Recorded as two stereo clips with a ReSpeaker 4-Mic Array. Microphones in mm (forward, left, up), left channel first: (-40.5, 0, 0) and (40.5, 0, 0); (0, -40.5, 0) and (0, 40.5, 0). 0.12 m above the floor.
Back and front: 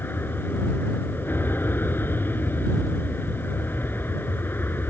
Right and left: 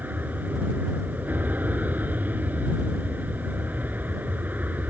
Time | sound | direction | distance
0.0 | an aircraft | 140° left | ?